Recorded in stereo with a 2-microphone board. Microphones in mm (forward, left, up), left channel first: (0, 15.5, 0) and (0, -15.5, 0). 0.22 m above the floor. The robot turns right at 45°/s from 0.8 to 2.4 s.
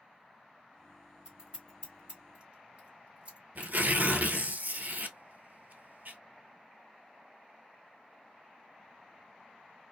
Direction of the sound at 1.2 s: 20° right (ahead or behind).